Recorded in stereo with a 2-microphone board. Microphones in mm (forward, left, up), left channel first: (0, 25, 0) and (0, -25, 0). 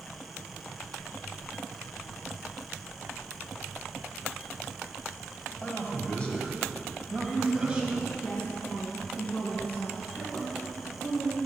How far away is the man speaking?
About 1.8 m.